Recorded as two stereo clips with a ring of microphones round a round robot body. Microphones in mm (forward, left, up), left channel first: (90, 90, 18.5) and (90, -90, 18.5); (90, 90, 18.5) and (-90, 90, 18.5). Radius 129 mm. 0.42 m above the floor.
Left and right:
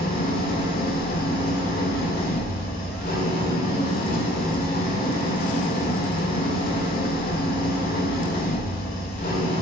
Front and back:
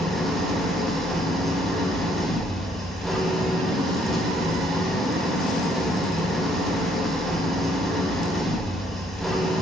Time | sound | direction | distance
0.0 | an engine running | 90° left | 1.6 m